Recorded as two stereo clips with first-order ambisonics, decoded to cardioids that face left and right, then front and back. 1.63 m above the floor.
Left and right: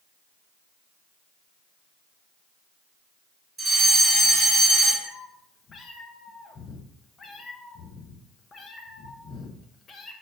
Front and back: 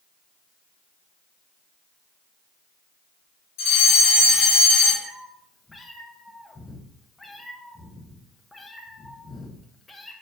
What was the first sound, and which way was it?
A fire alarm, 5° right.